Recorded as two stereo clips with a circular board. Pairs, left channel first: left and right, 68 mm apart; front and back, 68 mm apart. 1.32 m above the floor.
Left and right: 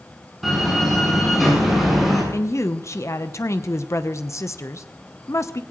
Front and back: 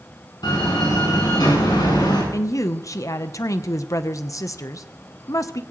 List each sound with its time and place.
0.4 s a door slam: straight ahead, 9 m
2.3 s a woman speaking: 40° left, 0.9 m